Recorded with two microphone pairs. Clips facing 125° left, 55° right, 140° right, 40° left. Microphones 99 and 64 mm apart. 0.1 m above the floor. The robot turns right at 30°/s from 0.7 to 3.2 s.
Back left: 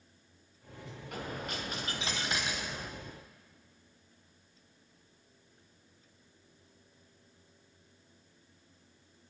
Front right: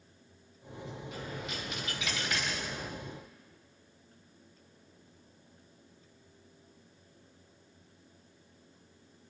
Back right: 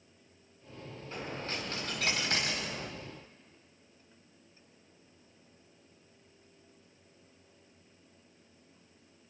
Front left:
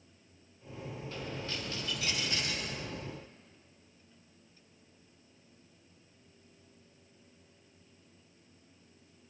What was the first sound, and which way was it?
A dropped coin, 160° left.